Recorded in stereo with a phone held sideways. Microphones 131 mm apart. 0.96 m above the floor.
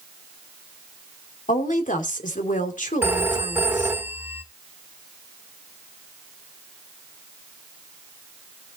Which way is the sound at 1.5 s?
80° left.